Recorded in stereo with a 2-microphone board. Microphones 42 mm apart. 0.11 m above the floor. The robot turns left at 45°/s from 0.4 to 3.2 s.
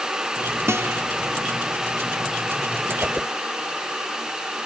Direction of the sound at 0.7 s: 85° right.